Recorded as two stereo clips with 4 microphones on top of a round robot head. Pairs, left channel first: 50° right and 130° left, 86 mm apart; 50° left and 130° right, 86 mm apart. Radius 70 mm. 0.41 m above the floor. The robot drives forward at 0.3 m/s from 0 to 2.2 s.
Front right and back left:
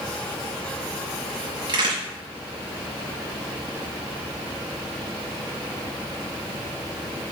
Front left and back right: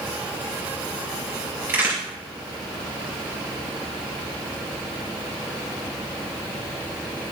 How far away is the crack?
About 4 m.